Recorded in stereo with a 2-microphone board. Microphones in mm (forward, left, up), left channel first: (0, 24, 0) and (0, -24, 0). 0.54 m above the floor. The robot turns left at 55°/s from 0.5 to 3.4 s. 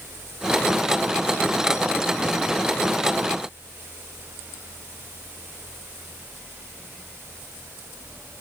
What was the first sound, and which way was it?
Only background noise.